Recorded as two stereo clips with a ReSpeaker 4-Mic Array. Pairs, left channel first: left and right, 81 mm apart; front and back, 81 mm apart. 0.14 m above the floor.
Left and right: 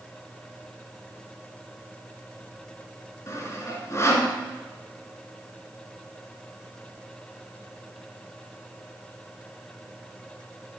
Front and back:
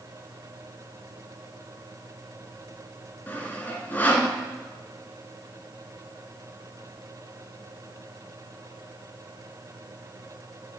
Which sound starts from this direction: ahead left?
Sawing, at 3.3 s.